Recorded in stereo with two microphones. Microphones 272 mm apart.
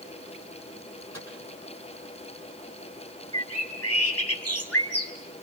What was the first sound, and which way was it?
A microwave, 75° left (ahead or behind).